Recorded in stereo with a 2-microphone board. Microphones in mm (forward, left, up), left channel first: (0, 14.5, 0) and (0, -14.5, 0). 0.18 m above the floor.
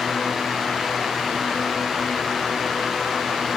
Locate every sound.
Only background noise.